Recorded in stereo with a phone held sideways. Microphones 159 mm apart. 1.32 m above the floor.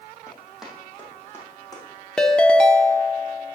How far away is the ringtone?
About 0.6 m.